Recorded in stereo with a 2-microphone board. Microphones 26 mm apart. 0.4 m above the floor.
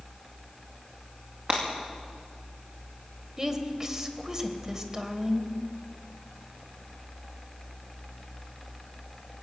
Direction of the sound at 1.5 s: 45° right (ahead or behind).